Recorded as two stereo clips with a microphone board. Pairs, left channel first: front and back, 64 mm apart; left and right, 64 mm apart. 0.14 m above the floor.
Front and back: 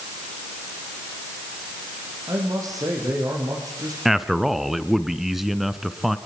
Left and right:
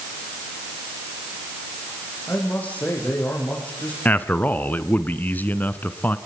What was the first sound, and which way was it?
A man speaking, 155° left.